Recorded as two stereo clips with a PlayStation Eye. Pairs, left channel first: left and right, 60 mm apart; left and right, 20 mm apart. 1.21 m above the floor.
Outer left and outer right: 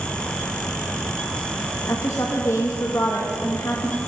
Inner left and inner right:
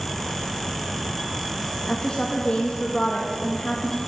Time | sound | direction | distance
1.9 | a woman speaking | 50° left (ahead or behind) | 1.9 m